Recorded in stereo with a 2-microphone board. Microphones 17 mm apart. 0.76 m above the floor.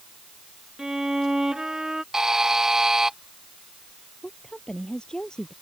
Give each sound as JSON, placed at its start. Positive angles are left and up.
{"t": 0.8, "sound": "a violin", "side_deg": -40}
{"t": 2.1, "sound": "a buzzer", "side_deg": -35}
{"t": 4.2, "sound": "a woman speaking", "side_deg": 60}